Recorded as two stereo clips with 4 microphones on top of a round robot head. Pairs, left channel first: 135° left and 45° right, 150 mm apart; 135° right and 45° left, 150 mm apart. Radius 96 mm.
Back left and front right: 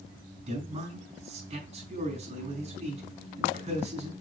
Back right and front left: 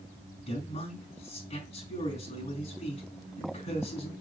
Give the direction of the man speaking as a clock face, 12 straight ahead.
3 o'clock.